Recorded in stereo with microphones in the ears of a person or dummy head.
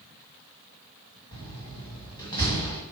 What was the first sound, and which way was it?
A door slam, 20° left (ahead or behind).